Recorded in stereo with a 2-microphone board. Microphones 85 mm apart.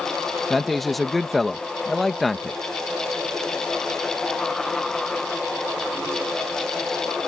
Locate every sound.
0.5 s a man speaking: centre (ahead or behind)